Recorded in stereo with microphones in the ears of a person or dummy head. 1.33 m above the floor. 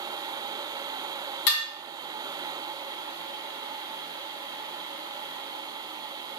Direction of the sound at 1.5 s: 60° left (ahead or behind).